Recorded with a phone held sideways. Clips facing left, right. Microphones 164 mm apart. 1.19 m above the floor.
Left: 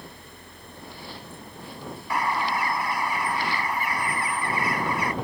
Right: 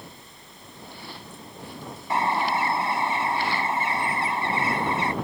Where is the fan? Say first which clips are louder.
Left 2 dB; 65° left (ahead or behind).